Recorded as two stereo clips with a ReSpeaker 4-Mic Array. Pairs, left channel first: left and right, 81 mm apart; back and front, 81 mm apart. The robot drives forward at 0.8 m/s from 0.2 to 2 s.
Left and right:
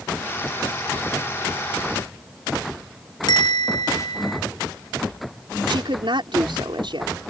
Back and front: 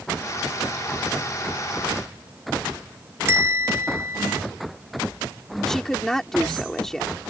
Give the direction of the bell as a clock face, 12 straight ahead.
10 o'clock.